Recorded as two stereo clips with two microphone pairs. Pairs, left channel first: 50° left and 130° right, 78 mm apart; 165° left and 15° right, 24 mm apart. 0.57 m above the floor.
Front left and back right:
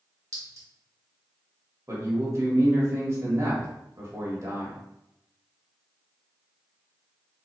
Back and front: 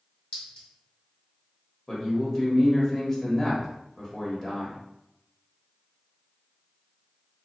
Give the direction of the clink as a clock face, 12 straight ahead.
6 o'clock.